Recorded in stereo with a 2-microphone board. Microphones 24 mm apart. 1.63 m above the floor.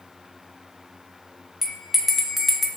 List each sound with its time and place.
1.6 s a bell: 15° right (ahead or behind), 0.5 m